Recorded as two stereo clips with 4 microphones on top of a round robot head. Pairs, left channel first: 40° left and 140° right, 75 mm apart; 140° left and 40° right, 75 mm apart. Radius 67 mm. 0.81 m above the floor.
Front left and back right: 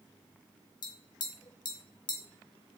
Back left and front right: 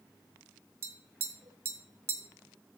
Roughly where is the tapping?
Ahead.